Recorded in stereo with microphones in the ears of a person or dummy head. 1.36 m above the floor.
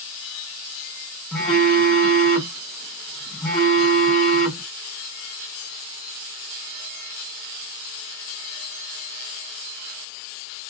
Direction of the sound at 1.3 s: 5° left (ahead or behind).